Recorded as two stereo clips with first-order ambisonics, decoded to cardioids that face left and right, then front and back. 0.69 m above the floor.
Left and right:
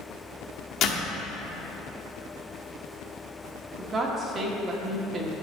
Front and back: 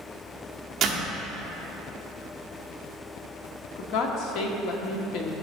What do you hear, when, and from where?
0.8 s a door slam: 120° left, 1.2 m
3.8 s a woman speaking: 25° right, 1.1 m